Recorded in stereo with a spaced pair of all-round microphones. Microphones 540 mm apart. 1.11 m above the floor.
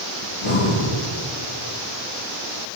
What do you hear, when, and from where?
0.2 s breathing: 70° left (ahead or behind), 1.7 m